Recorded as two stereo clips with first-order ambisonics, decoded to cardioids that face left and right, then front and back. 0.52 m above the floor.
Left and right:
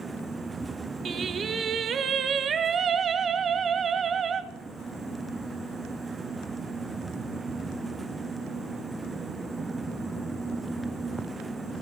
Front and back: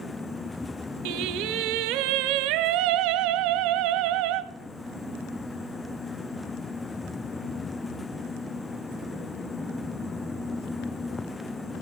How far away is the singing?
About 0.6 m.